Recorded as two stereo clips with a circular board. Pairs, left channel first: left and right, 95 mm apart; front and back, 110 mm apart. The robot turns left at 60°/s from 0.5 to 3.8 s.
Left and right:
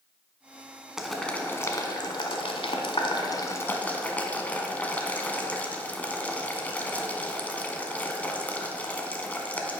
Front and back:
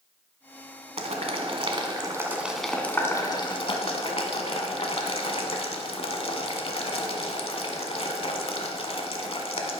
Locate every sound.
1.0 s boiling: 170° right, 0.8 m; by 9.8 s 20° left, 0.8 m